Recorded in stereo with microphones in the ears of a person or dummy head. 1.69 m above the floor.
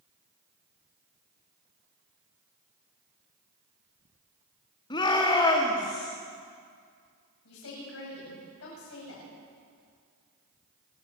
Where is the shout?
20° left (ahead or behind), 3 m; by 6.1 s 15° left (ahead or behind), 4 m.